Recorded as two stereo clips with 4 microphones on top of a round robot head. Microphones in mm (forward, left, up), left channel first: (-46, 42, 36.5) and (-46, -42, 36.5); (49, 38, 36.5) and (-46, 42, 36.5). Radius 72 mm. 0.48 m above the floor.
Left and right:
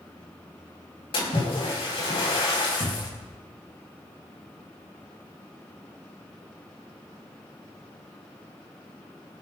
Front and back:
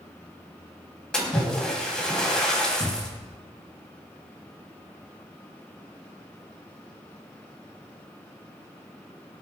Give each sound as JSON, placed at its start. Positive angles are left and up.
{"t": 1.1, "sound": "a splash", "azimuth_deg": 80, "distance_m": 4.0}
{"t": 2.8, "sound": "a cupboard door", "azimuth_deg": 90, "distance_m": 3.5}